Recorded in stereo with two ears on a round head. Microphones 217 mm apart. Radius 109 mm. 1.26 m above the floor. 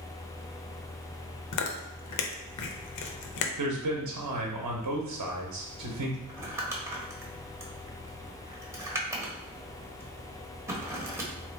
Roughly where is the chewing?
Left.